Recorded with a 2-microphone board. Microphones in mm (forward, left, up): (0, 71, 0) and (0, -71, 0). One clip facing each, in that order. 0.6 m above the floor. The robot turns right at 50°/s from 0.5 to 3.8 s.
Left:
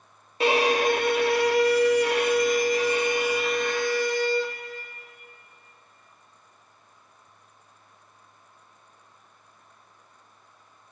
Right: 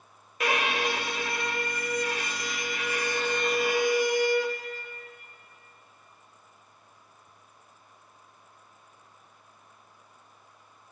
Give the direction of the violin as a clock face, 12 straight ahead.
11 o'clock.